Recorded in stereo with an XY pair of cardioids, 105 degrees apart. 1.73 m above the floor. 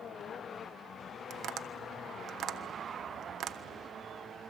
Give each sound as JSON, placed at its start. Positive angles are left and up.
{"t": 1.3, "sound": "tapping", "azimuth_deg": -65, "distance_m": 1.3}